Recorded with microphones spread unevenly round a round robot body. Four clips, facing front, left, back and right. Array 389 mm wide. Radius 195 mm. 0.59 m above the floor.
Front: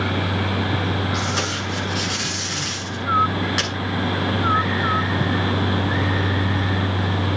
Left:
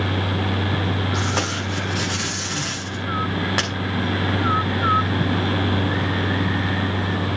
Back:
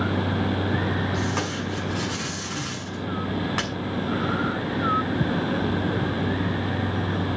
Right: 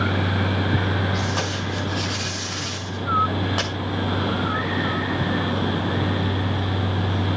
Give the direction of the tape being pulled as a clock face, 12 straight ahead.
8 o'clock.